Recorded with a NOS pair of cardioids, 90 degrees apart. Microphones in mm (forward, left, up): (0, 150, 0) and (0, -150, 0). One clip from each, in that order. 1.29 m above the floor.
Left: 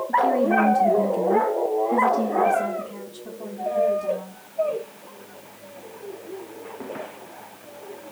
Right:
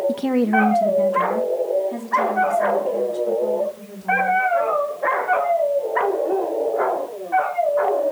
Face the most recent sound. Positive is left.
turn(degrees=35)